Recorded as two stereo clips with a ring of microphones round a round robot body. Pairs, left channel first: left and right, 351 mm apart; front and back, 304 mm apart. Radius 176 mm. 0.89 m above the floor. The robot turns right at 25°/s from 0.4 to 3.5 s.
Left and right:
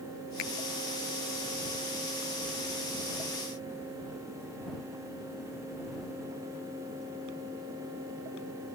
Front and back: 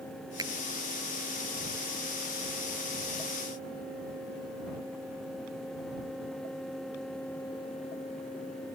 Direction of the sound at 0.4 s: 100° left.